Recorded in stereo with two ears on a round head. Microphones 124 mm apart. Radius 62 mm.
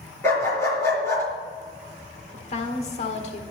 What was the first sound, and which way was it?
A dog barking, 20° left (ahead or behind).